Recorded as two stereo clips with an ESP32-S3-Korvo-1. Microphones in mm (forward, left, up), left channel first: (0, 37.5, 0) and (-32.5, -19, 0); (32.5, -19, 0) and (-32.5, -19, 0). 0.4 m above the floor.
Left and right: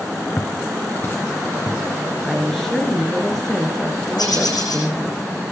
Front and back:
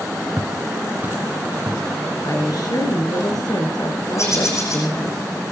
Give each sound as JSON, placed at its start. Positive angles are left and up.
{"t": 0.4, "sound": "footsteps", "azimuth_deg": 125, "distance_m": 1.7}
{"t": 2.2, "sound": "a woman speaking", "azimuth_deg": -25, "distance_m": 6.0}
{"t": 4.2, "sound": "a bird", "azimuth_deg": 45, "distance_m": 10.0}